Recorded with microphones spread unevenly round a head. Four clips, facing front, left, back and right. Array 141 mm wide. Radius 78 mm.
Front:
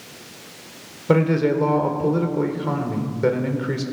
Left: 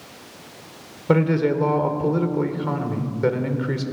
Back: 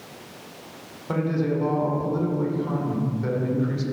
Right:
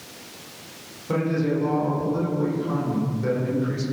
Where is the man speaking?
30° left, 3.5 m.